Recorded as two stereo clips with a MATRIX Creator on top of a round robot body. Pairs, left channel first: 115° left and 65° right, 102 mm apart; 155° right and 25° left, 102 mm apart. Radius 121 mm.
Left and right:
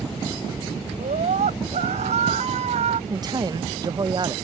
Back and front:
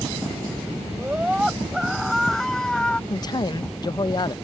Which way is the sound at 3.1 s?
115° right.